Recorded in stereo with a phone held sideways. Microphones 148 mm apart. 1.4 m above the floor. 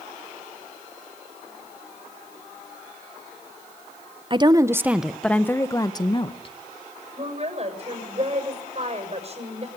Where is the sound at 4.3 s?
35° right (ahead or behind), 1.0 m; by 6.5 s 40° left (ahead or behind), 1.6 m.